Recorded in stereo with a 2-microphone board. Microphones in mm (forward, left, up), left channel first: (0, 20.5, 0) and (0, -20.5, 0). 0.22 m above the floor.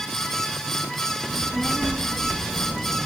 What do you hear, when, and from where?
1.3 s a child speaking: 5° right (ahead or behind), 2.5 m